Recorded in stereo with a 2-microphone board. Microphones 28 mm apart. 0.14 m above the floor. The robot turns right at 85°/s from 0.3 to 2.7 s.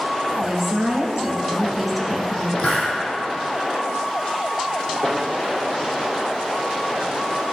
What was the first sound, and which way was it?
A woman speaking, 140° right.